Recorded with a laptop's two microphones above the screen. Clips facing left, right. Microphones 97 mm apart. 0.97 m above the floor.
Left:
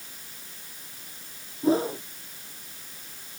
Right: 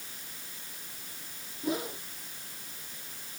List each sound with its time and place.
1.6 s a whoosh: 30° left (ahead or behind)